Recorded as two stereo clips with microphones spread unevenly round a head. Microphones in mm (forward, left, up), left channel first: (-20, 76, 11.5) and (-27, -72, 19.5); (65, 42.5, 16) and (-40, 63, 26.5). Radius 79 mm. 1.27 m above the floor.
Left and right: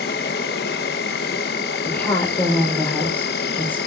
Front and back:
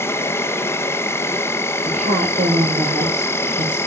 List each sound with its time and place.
0.0 s an insect: 55° left, 1.1 m
1.9 s a woman speaking: 165° left, 4 m